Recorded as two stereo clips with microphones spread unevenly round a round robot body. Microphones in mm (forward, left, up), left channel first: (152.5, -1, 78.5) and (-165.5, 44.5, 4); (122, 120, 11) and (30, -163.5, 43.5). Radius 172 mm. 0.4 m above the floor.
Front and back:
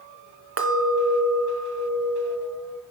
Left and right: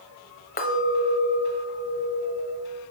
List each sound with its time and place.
0.6 s a clink: 130° left, 1.0 m